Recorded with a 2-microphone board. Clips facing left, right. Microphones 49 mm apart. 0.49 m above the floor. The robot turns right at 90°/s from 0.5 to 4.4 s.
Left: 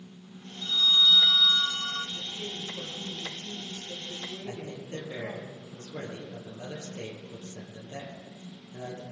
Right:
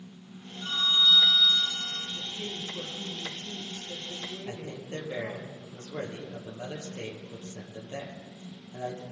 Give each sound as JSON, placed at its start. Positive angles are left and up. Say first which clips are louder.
{"t": 0.6, "sound": "a phone ringing", "louder": "left 1 dB", "azimuth_deg": -60, "distance_m": 1.5}
{"t": 2.1, "sound": "a woman speaking", "louder": "even", "azimuth_deg": 180, "distance_m": 9.5}
{"t": 4.5, "sound": "a man speaking", "louder": "even", "side_deg": -30, "distance_m": 10.0}